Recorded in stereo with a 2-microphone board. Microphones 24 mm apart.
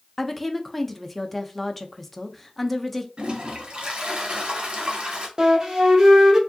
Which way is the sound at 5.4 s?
30° right (ahead or behind).